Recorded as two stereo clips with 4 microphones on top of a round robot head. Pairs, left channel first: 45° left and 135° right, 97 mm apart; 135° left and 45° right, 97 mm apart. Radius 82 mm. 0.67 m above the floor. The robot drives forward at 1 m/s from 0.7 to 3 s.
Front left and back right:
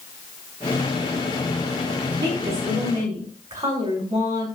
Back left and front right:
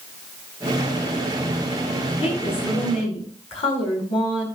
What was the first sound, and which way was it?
A woman speaking, 165° left.